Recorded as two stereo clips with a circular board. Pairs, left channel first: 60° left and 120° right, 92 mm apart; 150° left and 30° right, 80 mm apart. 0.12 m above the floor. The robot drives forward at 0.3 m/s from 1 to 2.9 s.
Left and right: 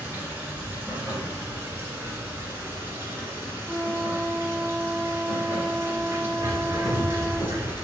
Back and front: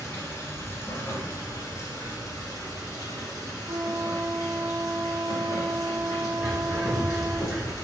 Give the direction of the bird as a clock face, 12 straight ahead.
3 o'clock.